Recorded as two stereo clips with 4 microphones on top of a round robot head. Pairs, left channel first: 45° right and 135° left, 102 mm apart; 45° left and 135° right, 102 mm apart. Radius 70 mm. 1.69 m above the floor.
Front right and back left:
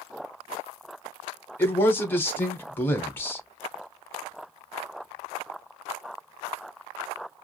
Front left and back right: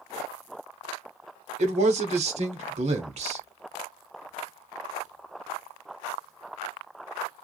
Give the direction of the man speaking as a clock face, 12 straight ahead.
4 o'clock.